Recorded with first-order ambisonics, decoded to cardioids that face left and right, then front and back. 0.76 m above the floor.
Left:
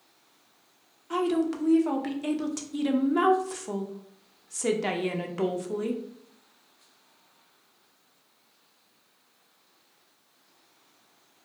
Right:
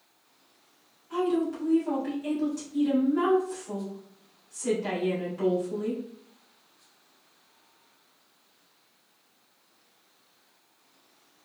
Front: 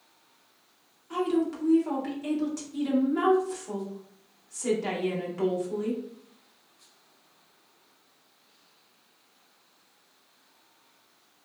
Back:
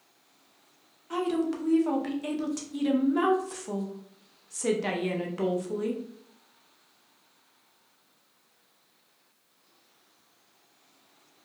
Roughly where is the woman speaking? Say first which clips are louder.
Left 1 dB, front 1 dB; behind left.